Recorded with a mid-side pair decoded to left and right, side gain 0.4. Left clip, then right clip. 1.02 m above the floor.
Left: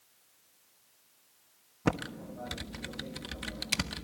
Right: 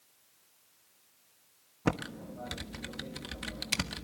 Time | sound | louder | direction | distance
1.9 | typing on a keyboard | left 1 dB | 5° left | 1.2 m